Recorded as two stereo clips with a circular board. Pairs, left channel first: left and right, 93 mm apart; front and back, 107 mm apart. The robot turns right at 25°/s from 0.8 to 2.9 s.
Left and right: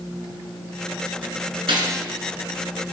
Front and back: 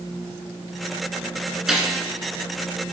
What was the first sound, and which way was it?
A gunshot, 95° right.